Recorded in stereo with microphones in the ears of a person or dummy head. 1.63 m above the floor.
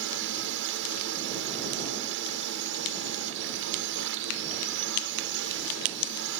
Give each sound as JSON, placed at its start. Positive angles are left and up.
{"t": 0.0, "sound": "a drone", "side_deg": -65}